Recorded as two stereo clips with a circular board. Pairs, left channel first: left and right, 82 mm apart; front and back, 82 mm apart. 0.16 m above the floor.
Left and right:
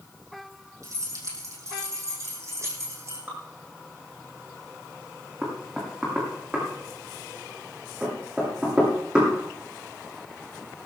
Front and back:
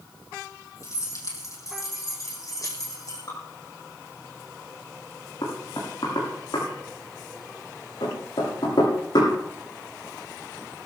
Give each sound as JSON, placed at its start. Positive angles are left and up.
{"t": 0.8, "sound": "keys jangling", "azimuth_deg": -45, "distance_m": 4.5}
{"t": 3.3, "sound": "dripping", "azimuth_deg": -25, "distance_m": 6.5}
{"t": 5.4, "sound": "knocking", "azimuth_deg": -10, "distance_m": 7.5}